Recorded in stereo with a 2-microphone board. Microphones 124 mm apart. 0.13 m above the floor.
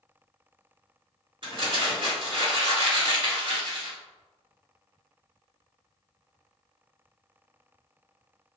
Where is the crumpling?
40° right (ahead or behind), 2.0 m.